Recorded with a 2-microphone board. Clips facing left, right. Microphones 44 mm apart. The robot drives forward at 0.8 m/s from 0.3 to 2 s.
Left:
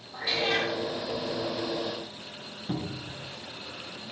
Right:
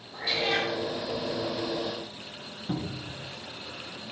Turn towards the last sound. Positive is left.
turn(degrees=0)  # may be behind; listen again after turning